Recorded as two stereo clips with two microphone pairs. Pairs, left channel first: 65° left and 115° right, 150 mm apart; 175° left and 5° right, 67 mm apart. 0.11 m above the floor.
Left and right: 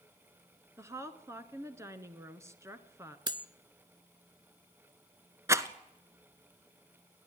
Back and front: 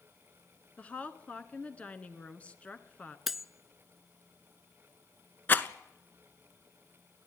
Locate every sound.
0.8 s a woman speaking: 150° right, 1.3 m
3.3 s cutlery clinking: 90° right, 0.7 m
5.5 s a rattle: 165° right, 0.9 m